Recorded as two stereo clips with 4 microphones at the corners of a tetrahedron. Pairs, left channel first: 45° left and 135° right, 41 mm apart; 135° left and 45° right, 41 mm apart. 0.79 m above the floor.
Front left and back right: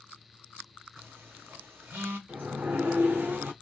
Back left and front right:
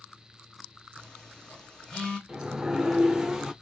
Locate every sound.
1.0 s a phone buzzing: 155° right, 1.2 m
2.3 s a sliding door: 120° right, 0.7 m